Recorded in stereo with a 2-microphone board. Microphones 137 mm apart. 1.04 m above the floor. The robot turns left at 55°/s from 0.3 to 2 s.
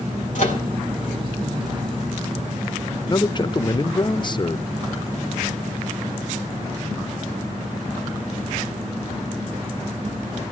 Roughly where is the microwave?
Left.